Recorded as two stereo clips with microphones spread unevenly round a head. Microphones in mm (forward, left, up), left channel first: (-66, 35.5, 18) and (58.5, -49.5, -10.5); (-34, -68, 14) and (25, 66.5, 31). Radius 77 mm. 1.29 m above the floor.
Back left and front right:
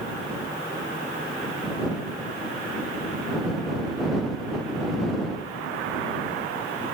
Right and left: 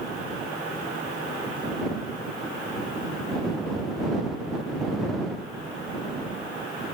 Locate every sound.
Only background noise.